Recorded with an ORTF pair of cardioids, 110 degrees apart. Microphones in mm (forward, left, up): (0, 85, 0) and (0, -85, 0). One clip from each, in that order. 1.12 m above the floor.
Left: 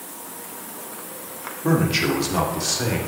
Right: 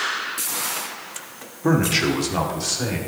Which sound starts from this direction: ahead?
A man speaking, at 1.6 s.